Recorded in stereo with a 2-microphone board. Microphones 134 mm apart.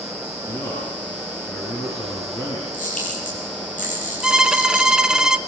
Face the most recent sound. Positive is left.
turn(degrees=-5)  # may be behind; listen again after turning